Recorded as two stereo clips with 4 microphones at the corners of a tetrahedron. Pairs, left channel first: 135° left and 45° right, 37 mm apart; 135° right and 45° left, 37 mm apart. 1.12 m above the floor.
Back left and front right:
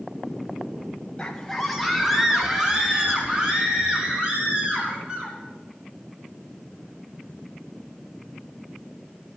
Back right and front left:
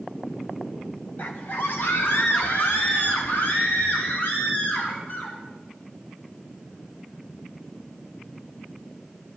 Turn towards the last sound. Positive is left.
turn(degrees=-110)